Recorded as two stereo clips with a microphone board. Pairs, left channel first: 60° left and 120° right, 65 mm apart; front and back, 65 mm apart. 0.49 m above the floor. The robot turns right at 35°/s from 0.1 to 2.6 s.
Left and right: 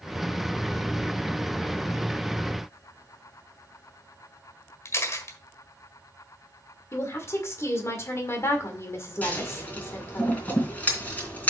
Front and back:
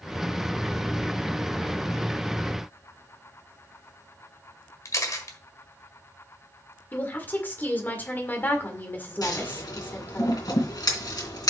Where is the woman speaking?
50° left, 1.8 m.